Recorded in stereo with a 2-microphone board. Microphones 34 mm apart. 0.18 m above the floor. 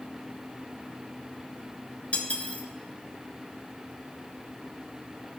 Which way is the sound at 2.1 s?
40° left (ahead or behind).